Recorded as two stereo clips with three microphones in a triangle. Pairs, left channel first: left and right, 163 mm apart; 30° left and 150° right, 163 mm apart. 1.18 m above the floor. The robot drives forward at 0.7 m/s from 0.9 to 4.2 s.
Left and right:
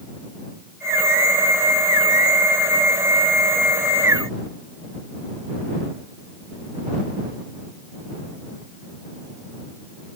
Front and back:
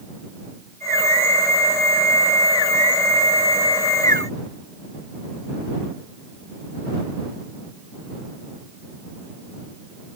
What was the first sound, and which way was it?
Only background noise.